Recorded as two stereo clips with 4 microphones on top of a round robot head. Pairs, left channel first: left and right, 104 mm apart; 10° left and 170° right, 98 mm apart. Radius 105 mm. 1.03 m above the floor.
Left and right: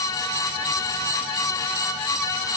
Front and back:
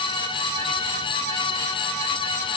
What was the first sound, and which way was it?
Only background noise.